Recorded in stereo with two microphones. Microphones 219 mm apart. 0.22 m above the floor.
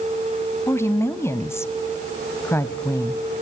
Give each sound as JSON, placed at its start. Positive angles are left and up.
{"t": 0.7, "sound": "a woman speaking", "side_deg": 10, "distance_m": 0.9}